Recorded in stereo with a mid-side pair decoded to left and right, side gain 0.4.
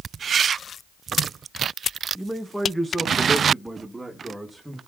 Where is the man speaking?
Straight ahead, 1.6 m; by 4.8 s 20° right, 3 m.